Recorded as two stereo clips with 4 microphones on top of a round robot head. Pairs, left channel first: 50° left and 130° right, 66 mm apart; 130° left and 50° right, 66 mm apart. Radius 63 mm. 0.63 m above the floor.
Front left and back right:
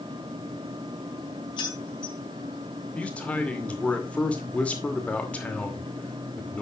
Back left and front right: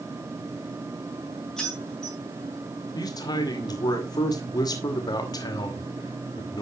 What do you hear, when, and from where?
1.6 s keys jangling: 45° left, 4 m
3.0 s a man speaking: 120° left, 2.5 m